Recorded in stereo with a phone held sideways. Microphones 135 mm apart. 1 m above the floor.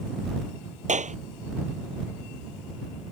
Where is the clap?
65° right (ahead or behind).